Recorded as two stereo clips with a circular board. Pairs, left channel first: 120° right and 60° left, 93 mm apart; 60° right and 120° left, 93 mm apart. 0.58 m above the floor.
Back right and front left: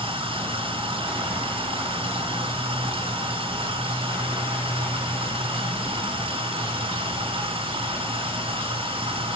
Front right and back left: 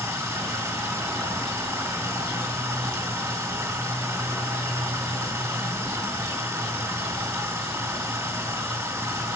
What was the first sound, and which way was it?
Running water, 65° left.